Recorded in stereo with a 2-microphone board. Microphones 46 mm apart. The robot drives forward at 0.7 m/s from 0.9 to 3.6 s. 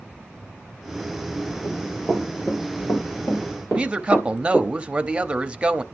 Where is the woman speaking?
25° right (ahead or behind), 0.6 m.